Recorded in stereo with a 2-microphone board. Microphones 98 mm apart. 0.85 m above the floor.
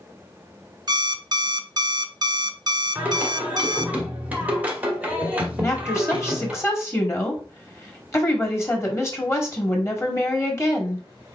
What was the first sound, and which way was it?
An alarm clock, 45° right (ahead or behind).